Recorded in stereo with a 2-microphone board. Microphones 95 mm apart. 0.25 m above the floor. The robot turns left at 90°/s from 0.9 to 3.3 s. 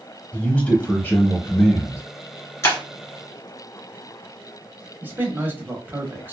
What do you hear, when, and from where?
0.3 s a man speaking: 155° left, 1.1 m; by 2.0 s 55° left, 1.1 m
2.6 s breaking glass: 30° left (ahead or behind), 1.3 m; by 2.8 s 40° left (ahead or behind), 1.3 m
5.0 s a man speaking: 20° right (ahead or behind), 1.0 m